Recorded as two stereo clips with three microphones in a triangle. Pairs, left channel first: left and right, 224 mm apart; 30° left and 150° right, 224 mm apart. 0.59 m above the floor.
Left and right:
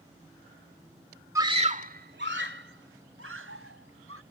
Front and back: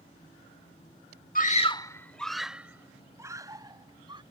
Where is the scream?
15° right; by 4.2 s 80° right.